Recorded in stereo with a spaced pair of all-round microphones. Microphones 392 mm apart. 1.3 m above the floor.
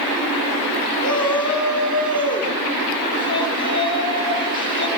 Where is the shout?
10° left (ahead or behind), 6 m.